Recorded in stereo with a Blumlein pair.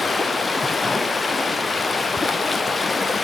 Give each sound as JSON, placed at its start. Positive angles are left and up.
{"t": 0.0, "sound": "running water", "azimuth_deg": 10, "distance_m": 0.9}